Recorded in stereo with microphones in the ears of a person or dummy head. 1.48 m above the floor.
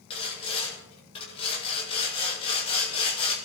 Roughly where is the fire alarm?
I don't hear a fire alarm.